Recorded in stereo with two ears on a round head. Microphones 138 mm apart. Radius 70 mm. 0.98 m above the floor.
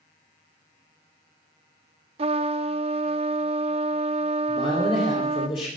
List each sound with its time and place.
2.2 s a trumpet: 40° right (ahead or behind), 0.5 m
4.5 s a man speaking: 35° left (ahead or behind), 3 m